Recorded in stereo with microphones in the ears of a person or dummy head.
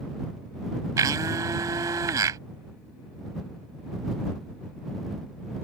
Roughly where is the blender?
Right.